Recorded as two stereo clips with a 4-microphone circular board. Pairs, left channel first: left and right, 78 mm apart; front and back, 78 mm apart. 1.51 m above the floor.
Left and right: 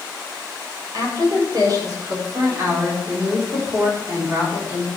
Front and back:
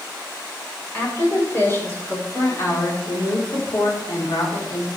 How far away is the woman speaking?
About 6 m.